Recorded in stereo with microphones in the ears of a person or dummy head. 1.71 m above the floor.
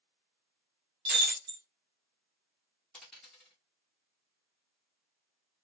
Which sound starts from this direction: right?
Breaking glass, at 1.1 s.